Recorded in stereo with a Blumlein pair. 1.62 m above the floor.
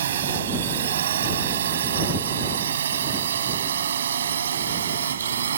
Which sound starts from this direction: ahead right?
A drone, at 0.0 s.